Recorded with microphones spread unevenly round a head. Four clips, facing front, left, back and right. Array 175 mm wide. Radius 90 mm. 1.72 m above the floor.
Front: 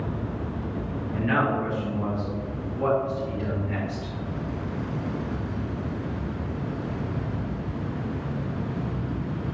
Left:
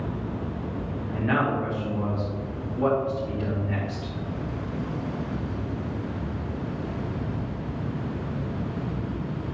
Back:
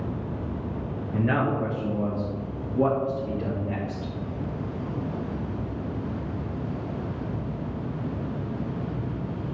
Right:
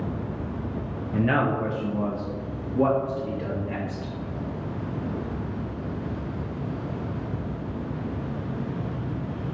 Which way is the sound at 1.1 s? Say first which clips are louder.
Right 2 dB, even; 110° right.